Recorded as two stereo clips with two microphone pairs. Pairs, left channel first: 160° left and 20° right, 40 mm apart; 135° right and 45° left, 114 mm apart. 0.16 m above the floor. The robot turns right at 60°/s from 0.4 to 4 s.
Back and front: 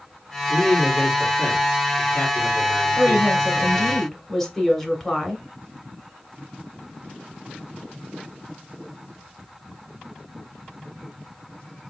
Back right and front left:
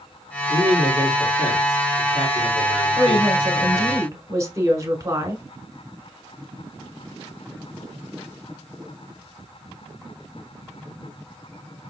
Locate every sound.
0.5 s a man speaking: 20° left, 3.5 m; by 4.0 s 130° right, 3.5 m
3.0 s a woman speaking: 20° left, 1.2 m; by 5.4 s 85° left, 1.2 m